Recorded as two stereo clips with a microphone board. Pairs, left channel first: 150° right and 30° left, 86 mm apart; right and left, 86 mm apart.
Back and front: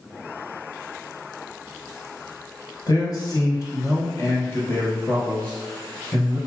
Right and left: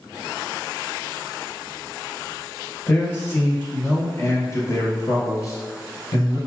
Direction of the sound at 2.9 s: 150° right.